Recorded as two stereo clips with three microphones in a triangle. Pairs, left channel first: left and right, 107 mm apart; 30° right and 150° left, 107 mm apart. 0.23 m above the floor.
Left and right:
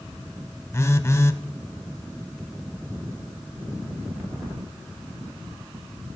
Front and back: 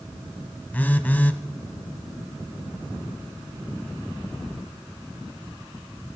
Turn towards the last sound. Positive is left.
turn(degrees=35)